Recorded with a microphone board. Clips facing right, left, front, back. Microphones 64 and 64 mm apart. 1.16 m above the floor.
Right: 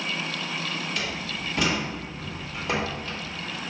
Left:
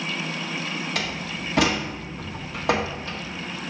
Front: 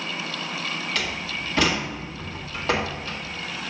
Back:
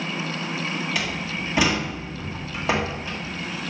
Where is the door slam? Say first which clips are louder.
Left 2 dB, back 1 dB; 105° left, 1.4 m.